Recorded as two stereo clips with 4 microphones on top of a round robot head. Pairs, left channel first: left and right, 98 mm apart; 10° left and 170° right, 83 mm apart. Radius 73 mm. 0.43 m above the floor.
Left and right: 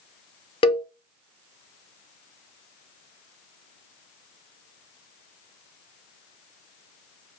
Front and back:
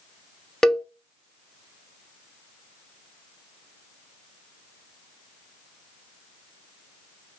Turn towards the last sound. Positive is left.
turn(degrees=95)